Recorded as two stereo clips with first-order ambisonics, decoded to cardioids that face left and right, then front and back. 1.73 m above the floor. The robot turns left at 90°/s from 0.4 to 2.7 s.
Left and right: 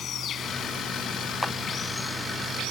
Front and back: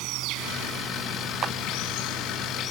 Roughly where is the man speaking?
I don't hear a man speaking.